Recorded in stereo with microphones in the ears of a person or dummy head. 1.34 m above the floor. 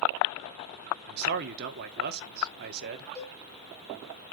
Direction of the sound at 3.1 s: 30° right (ahead or behind).